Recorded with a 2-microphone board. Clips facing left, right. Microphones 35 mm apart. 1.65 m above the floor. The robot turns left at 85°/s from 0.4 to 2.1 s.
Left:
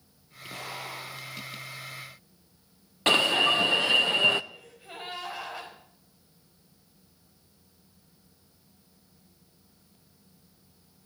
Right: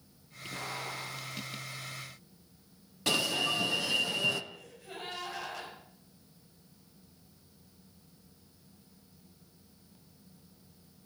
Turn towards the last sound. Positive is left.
turn(degrees=20)  # may be behind; listen again after turning